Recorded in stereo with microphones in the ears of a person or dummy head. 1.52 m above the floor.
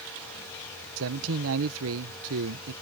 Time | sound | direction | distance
1.0 | a man speaking | 80° right | ?